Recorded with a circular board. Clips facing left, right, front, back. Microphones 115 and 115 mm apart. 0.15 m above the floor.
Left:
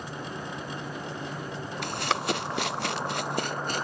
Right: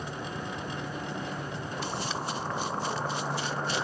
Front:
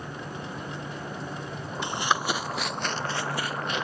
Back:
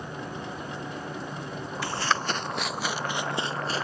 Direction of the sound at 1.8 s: 70° left.